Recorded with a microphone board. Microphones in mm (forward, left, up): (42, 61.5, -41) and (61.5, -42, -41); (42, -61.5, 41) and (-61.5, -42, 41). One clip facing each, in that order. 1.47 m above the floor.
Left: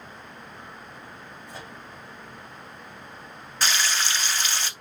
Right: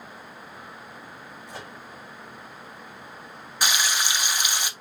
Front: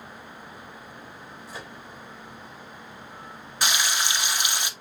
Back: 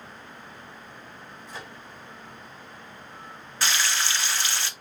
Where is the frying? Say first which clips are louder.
Even, front 1 dB; 40° right, 0.6 m.